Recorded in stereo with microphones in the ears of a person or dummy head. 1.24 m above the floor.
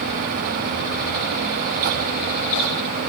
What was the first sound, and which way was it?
Only background noise.